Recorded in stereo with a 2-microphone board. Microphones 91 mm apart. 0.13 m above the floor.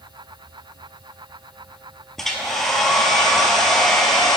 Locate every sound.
2.2 s a hair dryer: centre (ahead or behind), 0.7 m